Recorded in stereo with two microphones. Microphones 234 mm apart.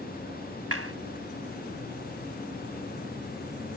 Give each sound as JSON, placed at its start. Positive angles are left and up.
{"t": 0.7, "sound": "a clap", "side_deg": -75}